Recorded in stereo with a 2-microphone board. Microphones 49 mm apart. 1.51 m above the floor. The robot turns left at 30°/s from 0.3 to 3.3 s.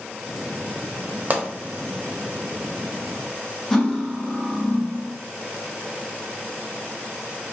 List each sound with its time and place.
1.3 s a pop: 40° right (ahead or behind), 0.7 m; by 1.4 s 35° right (ahead or behind), 0.7 m
3.7 s cutlery clinking: 10° left (ahead or behind), 0.7 m